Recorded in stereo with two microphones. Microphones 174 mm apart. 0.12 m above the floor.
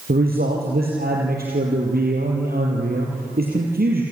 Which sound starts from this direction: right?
A man speaking, at 0.1 s.